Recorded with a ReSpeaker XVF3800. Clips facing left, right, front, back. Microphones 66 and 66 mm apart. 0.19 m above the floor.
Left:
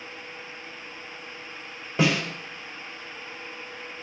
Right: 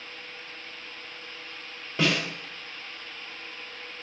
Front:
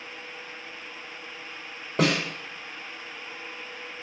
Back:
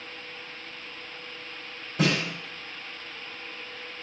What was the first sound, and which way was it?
A snare drum, 15° left.